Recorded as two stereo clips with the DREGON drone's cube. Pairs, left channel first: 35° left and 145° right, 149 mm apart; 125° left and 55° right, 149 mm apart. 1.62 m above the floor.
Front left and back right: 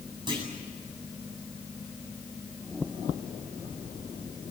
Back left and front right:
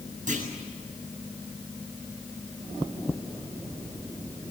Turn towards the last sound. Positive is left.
turn(degrees=-85)